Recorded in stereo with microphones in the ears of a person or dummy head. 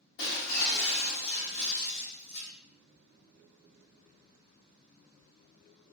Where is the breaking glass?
60° left (ahead or behind), 1.2 m.